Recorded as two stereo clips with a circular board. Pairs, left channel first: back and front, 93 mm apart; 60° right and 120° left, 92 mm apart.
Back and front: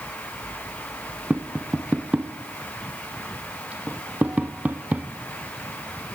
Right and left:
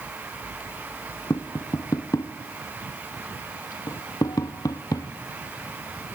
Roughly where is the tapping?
Ahead right.